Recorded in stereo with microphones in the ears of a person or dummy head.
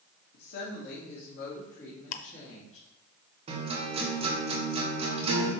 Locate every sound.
0.3 s a woman speaking: 60° left (ahead or behind), 1.8 m; by 2.9 s 40° left (ahead or behind), 3 m
2.1 s ticking: 50° left (ahead or behind), 0.7 m
3.5 s a guitar: 30° right (ahead or behind), 1.4 m